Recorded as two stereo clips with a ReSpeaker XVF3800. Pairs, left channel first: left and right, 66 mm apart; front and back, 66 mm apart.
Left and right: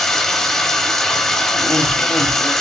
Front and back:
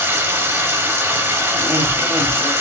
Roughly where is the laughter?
Behind left.